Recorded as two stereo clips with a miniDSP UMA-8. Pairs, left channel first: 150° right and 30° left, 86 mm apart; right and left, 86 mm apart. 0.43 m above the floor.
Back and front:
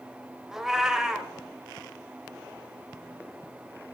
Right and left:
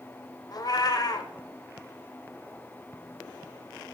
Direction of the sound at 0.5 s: 55° right.